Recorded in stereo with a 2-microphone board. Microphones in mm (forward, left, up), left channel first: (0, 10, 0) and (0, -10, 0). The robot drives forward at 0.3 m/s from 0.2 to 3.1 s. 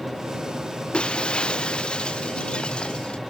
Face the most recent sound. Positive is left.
turn(degrees=50)  # may be behind; listen again after turning